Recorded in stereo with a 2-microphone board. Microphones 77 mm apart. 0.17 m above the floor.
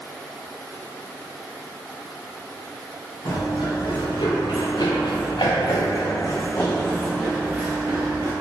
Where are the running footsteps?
70° left (ahead or behind), 1.9 m; by 8.3 s 30° right (ahead or behind), 1.1 m.